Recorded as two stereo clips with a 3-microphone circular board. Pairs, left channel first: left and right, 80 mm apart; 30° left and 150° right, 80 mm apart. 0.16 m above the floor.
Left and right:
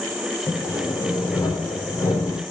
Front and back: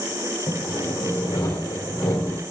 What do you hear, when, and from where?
0.5 s sawing: 50° left, 4 m